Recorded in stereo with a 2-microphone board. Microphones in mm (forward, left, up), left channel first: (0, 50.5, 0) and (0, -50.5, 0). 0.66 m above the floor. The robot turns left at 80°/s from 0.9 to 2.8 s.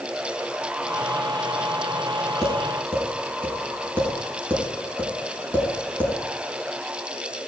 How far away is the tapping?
About 6 m.